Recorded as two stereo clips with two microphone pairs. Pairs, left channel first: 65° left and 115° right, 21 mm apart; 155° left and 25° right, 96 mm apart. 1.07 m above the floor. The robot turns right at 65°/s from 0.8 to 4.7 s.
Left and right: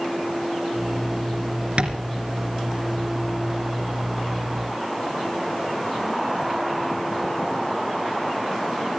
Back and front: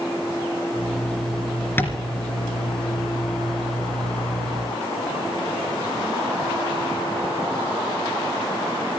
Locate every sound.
1.8 s tapping: 140° right, 3 m; by 2.0 s 125° right, 3 m